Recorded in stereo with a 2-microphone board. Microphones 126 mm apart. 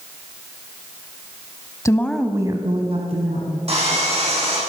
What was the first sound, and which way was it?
A woman speaking, 25° left (ahead or behind).